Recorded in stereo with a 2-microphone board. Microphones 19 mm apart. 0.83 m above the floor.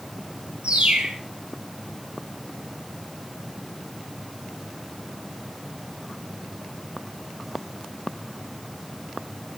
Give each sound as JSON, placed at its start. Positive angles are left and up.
{"t": 0.6, "sound": "a bird", "side_deg": -70, "distance_m": 4.0}